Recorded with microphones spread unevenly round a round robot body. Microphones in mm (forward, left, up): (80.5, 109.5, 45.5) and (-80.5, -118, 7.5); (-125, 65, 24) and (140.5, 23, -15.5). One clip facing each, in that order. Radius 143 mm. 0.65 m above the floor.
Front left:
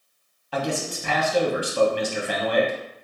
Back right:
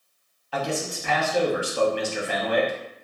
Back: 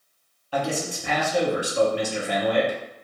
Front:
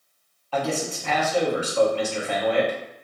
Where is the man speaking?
90° left, 0.9 m.